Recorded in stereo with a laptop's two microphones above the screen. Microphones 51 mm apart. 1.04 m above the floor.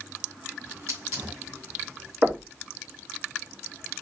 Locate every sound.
0.6 s a hiss: 60° right (ahead or behind), 4.5 m
2.2 s knocking: 35° right (ahead or behind), 2.5 m